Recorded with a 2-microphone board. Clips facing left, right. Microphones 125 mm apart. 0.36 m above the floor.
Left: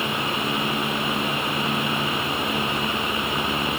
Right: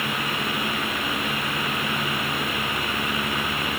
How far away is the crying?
I don't hear crying.